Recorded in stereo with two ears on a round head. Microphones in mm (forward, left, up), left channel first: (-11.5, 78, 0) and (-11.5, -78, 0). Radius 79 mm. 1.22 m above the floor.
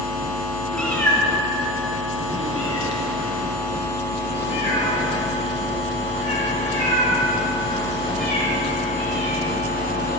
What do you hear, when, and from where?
0.7 s a cat meowing: 5° left (ahead or behind), 1.3 m; by 10.2 s 45° left (ahead or behind), 5.5 m